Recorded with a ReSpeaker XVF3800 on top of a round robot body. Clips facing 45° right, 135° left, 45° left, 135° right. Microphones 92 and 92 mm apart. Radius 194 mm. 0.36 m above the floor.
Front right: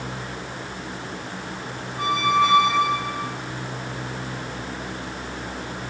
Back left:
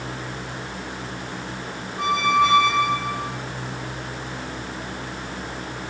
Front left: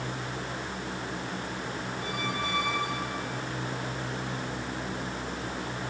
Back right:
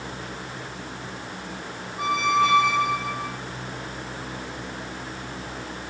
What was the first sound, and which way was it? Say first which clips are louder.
A squeak: back left 1 dB, back right 14 dB; 135° right.